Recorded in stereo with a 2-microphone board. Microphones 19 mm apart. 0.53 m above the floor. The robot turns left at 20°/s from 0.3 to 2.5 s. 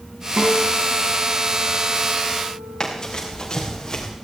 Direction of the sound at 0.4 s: 35° right.